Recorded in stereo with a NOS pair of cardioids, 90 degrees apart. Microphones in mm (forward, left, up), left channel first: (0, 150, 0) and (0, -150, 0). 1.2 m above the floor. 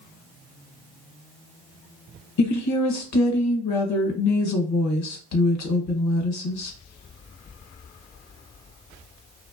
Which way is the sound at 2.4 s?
65° left.